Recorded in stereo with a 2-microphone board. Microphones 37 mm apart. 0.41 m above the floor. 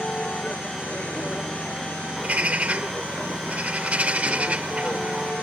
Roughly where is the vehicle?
Left.